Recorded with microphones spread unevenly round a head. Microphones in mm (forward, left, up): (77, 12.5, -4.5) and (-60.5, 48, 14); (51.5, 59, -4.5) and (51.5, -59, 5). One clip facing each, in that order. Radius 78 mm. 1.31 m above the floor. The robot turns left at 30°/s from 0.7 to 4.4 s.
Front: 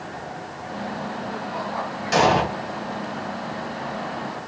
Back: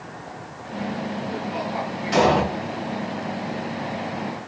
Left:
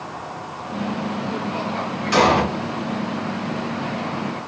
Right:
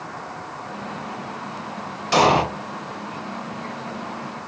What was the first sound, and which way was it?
An explosion, 50° right.